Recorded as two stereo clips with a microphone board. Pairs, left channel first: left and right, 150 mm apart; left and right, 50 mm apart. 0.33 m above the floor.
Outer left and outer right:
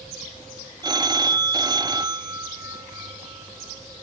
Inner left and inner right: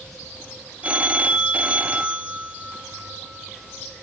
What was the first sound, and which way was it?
A phone ringing, 25° right (ahead or behind).